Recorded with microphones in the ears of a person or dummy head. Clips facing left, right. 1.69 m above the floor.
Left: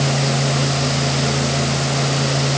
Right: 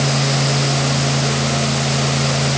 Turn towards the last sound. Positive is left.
No sound to turn to.